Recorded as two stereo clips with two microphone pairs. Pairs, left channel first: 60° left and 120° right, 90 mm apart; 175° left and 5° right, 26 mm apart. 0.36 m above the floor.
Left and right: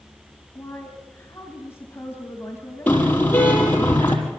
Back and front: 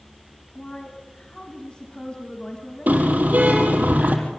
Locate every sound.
0.6 s a woman speaking: 120° left, 3 m
2.9 s a car horn: 10° right, 5 m